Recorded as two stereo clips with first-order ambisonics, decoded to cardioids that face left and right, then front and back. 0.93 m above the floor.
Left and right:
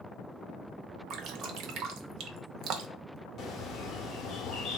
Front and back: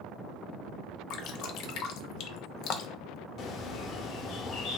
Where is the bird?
40° left, 0.7 m.